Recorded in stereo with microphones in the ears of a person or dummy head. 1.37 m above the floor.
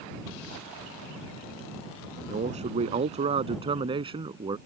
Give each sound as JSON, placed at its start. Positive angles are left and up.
{"t": 2.3, "sound": "a man speaking", "side_deg": -30}